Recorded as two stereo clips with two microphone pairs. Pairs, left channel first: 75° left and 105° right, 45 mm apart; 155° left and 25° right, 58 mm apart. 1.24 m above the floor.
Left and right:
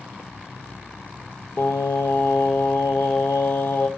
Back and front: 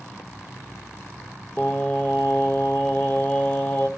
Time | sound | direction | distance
1.6 | singing | 95° left | 0.7 m